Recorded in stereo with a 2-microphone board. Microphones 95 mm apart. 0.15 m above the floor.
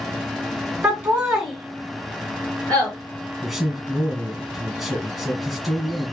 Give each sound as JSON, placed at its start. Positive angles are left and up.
{"t": 0.8, "sound": "laughter", "side_deg": -15, "distance_m": 1.6}
{"t": 3.4, "sound": "a man speaking", "side_deg": 0, "distance_m": 1.2}